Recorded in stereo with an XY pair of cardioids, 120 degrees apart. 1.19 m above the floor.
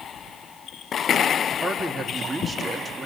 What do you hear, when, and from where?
1.6 s a man speaking: 15° right, 2 m